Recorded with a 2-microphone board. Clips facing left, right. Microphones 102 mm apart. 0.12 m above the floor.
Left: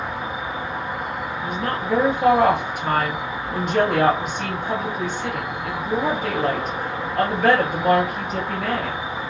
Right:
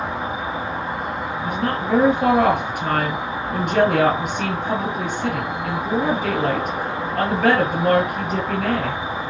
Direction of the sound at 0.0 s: 25° right (ahead or behind).